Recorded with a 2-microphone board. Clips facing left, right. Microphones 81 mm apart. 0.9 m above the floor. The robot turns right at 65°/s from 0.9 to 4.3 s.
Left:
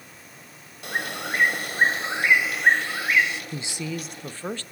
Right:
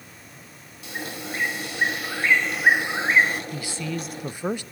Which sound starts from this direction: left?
A bird, at 0.8 s.